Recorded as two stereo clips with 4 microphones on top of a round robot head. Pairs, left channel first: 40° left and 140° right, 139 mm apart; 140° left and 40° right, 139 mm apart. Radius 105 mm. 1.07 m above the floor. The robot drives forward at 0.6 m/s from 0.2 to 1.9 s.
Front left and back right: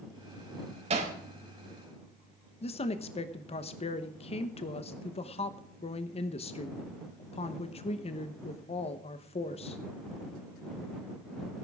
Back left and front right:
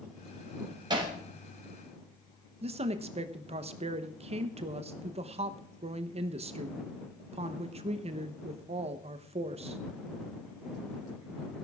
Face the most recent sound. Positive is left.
turn(degrees=0)